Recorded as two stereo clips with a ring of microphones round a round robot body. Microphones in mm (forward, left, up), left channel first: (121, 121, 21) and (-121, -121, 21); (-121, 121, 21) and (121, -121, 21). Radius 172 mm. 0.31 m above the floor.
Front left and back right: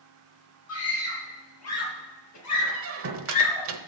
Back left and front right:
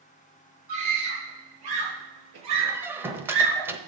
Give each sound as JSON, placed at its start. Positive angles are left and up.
{"t": 0.7, "sound": "a scream", "azimuth_deg": -5, "distance_m": 6.5}
{"t": 2.7, "sound": "a squeak", "azimuth_deg": -125, "distance_m": 1.0}